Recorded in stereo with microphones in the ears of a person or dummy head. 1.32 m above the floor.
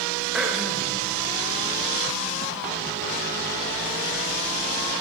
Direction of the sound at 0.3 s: Centre (ahead or behind).